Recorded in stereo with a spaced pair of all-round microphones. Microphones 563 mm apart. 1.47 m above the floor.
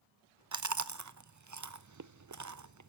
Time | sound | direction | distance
0.5 | chewing | 30° right (ahead or behind) | 0.5 m